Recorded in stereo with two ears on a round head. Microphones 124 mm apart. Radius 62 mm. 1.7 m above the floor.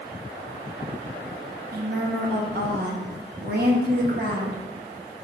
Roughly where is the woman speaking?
Right.